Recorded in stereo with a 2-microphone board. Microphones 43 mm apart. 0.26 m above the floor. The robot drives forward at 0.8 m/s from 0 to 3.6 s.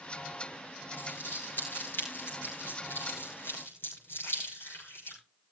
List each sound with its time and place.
0.9 s crumpling: 55° left (ahead or behind), 7.5 m; by 5.2 s 70° left (ahead or behind), 6.5 m